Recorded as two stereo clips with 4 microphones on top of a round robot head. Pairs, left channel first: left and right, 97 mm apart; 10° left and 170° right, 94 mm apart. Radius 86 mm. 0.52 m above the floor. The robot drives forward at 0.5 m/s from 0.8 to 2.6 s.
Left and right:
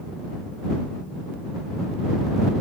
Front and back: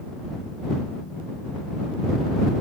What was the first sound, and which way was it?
Only background noise.